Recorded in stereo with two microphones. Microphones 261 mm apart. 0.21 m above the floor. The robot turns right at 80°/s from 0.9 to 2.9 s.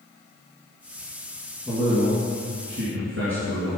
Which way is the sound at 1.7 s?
175° right.